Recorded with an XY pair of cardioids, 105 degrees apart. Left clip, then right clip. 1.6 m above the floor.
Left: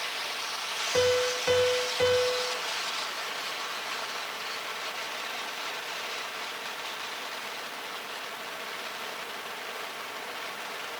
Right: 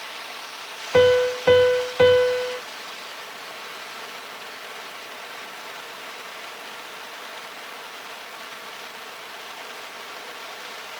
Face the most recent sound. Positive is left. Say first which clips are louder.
# right 9 dB
turn(degrees=-65)